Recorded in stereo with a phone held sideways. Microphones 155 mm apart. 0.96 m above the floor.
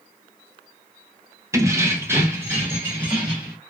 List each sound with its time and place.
1.5 s keys jangling: 20° right (ahead or behind), 0.5 m; by 3.6 s 15° right (ahead or behind), 1.5 m